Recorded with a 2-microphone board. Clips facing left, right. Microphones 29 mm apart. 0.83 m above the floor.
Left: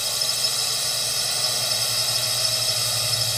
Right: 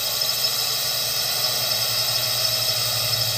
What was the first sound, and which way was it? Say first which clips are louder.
A drone: right 1 dB; 5° right (ahead or behind).